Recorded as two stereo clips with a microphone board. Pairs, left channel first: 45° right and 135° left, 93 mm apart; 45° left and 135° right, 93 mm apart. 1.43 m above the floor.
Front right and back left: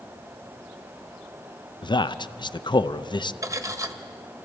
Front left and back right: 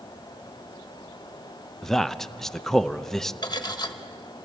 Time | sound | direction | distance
1.8 | a man speaking | 40° right | 0.5 m
3.4 | cutlery clinking | 85° left | 1.0 m